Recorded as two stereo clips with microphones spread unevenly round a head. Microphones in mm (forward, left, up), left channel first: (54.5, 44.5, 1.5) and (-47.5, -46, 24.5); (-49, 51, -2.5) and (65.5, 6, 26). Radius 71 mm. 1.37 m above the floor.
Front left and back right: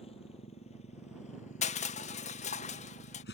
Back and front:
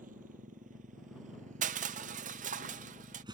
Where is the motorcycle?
10° right; by 3.3 s 30° left.